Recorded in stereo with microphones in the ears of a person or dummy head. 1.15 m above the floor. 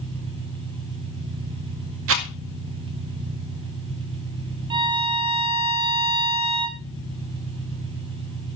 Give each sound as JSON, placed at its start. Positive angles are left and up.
{"t": 0.0, "sound": "an engine running", "side_deg": -30, "distance_m": 8.0}
{"t": 2.1, "sound": "a rattle", "side_deg": -70, "distance_m": 1.9}
{"t": 4.7, "sound": "a violin", "side_deg": -25, "distance_m": 1.0}